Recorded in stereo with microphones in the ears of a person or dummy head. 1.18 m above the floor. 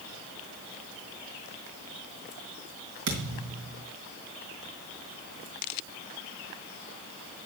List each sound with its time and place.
3.1 s a thud: 65° right (ahead or behind), 3 m